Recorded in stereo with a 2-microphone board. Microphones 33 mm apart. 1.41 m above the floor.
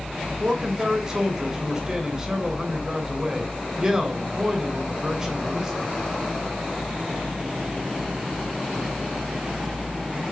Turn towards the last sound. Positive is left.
turn(degrees=-20)  # may be behind; listen again after turning